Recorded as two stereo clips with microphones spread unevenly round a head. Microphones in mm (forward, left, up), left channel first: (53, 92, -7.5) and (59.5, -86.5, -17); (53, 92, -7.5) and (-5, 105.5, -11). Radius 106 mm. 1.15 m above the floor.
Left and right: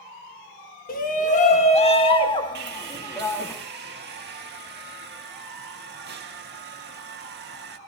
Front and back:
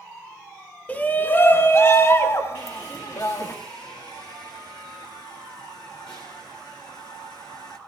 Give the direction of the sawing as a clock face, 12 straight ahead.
2 o'clock.